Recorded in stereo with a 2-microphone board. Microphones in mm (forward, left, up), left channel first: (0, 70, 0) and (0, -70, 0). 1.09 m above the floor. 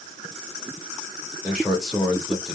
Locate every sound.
1.4 s a man speaking: 5° right (ahead or behind), 2.5 m